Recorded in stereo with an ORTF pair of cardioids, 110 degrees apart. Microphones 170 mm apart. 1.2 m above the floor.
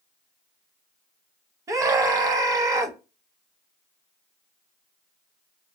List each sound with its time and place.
1.7 s a scream: 20° right, 0.8 m